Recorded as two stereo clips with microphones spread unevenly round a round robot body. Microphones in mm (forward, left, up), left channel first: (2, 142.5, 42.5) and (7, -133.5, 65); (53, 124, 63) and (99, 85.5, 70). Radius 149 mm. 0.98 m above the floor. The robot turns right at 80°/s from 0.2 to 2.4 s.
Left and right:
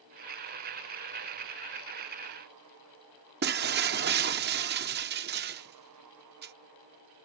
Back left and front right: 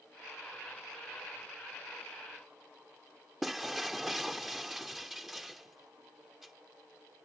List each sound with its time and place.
3.4 s breaking glass: 120° right